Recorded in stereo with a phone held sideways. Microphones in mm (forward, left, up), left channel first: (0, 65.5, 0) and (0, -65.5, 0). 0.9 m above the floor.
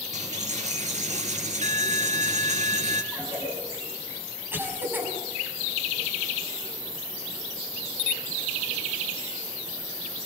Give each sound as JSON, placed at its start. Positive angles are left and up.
{"t": 0.1, "sound": "a dropped coin", "side_deg": -65, "distance_m": 3.5}
{"t": 3.1, "sound": "a cough", "side_deg": -15, "distance_m": 6.0}